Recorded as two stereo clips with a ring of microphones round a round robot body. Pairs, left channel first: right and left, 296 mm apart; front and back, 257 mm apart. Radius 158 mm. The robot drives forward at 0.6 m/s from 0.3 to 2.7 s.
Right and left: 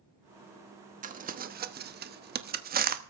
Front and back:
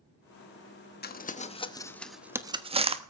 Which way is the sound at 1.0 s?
35° left.